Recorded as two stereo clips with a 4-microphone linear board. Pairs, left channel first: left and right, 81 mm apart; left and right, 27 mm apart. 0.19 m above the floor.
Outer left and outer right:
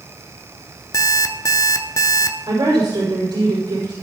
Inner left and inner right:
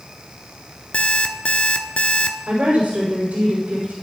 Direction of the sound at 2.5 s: 65° right (ahead or behind).